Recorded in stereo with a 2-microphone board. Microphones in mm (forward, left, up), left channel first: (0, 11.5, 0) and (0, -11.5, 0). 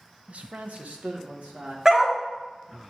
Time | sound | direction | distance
0.3 | a man speaking | 65° right (ahead or behind) | 0.5 m
1.9 | a dog barking | 25° right (ahead or behind) | 1.2 m